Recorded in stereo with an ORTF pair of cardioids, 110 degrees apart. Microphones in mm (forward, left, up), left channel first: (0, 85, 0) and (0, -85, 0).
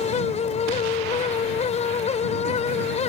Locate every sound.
0.0 s a fan: 40° left